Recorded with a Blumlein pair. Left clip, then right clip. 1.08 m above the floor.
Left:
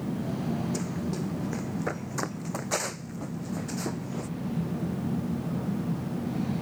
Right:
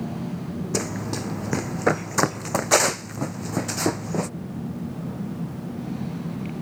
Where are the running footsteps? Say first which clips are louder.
Right 6 dB; 60° right.